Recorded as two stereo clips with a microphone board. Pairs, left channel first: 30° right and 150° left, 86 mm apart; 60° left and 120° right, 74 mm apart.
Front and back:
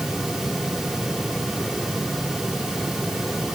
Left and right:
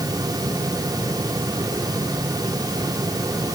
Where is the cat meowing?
No cat meowing in this recording.